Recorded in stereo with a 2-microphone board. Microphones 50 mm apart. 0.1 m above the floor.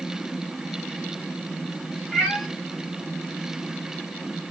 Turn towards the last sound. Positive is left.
turn(degrees=5)  # may be behind; listen again after turning